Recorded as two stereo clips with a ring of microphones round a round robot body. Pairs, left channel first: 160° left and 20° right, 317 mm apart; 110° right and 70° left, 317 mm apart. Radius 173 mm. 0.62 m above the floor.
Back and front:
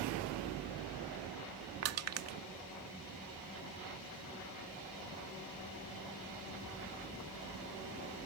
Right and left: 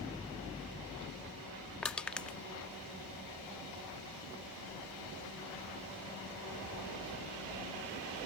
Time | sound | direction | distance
1.8 | crushing | 25° right | ?